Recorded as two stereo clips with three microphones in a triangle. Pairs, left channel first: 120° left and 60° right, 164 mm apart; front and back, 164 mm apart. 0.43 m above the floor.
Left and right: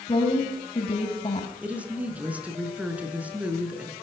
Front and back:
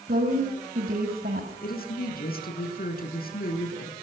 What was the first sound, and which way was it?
A woman speaking, 175° left.